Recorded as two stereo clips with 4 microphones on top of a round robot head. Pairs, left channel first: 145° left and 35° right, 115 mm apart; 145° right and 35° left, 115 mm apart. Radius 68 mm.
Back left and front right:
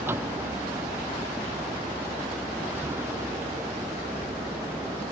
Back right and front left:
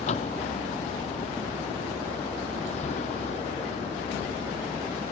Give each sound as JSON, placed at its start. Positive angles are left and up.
{"t": 0.0, "sound": "a vehicle", "azimuth_deg": -110}